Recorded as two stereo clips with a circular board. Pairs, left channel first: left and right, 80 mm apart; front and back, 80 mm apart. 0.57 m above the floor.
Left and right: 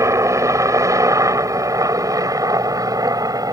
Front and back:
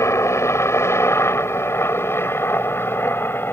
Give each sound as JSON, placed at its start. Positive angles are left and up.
{"t": 0.0, "sound": "a helicopter", "azimuth_deg": -50}